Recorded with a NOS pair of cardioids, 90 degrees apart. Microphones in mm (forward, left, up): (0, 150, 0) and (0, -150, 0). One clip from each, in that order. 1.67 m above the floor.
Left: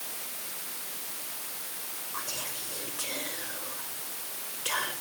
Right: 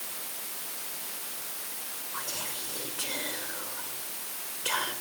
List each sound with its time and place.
2.1 s whispering: 5° right, 5.5 m